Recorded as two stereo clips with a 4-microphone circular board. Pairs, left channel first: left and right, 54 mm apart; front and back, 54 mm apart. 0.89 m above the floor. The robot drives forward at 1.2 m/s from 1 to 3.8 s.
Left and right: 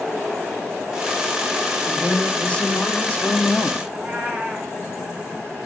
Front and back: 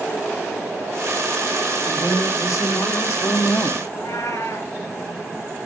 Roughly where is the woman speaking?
Ahead.